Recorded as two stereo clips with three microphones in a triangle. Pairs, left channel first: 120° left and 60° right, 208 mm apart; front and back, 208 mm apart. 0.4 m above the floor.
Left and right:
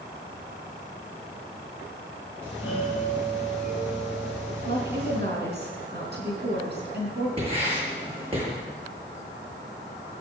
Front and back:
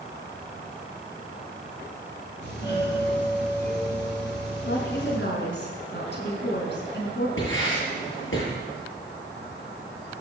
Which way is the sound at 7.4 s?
Straight ahead.